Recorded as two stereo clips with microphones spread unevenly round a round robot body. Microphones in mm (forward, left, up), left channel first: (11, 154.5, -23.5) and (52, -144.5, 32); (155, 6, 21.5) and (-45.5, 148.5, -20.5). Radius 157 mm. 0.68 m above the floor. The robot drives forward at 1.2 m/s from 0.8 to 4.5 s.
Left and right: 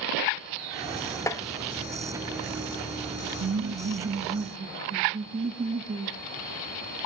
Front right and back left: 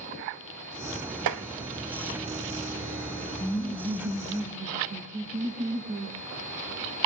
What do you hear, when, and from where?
1.3 s tapping: straight behind, 1.3 m
3.4 s laughter: 105° right, 1.2 m; by 6.2 s 160° right, 1.9 m